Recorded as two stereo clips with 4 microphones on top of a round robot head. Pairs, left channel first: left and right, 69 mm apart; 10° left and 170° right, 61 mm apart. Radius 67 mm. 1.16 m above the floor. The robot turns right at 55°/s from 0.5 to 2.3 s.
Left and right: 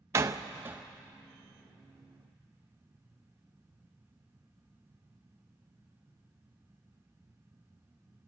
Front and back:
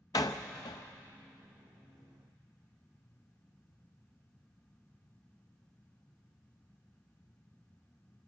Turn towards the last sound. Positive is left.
turn(degrees=55)